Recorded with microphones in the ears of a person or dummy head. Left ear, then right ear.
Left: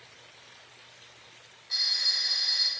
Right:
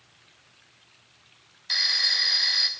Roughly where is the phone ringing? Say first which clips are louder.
Right 4 dB; right.